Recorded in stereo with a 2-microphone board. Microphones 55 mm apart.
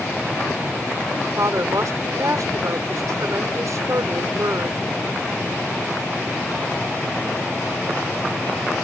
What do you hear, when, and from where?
1.4 s a woman speaking: 70° right (ahead or behind)